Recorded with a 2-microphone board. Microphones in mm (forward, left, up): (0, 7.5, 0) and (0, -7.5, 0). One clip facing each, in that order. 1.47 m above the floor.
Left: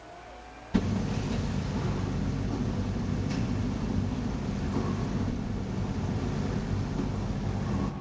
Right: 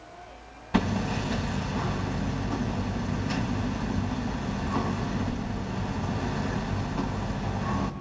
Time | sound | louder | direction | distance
0.7 | hammering | right 3 dB | 70° right (ahead or behind) | 1.9 m